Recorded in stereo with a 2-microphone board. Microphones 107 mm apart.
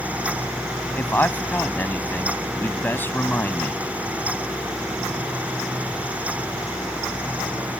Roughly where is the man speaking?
Centre.